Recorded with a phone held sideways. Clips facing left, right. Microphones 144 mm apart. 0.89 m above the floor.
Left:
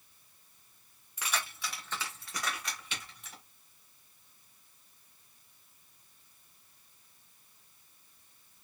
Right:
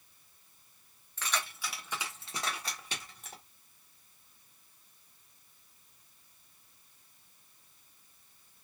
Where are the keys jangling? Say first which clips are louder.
Even; 15° left (ahead or behind), 1.2 m; by 3.4 s 50° right (ahead or behind), 1.7 m.